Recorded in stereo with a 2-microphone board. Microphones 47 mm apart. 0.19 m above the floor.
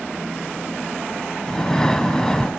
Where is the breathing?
15° left (ahead or behind), 0.9 m.